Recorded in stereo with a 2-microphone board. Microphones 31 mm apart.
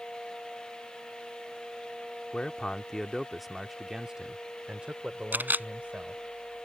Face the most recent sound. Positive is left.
turn(degrees=-80)